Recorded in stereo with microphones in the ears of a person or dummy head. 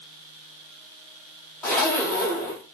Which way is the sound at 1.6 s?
5° left (ahead or behind).